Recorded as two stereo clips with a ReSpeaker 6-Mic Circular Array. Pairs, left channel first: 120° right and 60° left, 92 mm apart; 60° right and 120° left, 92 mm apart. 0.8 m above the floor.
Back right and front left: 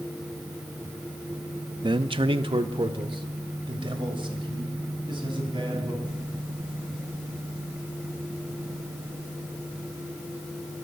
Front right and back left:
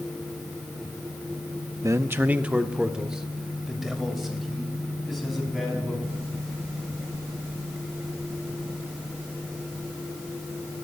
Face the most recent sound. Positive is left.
turn(degrees=30)